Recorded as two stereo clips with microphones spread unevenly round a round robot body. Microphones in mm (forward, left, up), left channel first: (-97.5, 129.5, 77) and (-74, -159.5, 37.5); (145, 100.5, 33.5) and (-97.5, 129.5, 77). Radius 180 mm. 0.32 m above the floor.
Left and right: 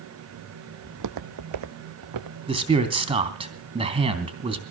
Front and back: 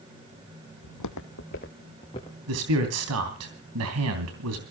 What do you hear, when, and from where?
0.8 s footsteps: 25° right, 0.8 m; by 2.4 s 85° right, 2.5 m
2.5 s a man speaking: 155° right, 3 m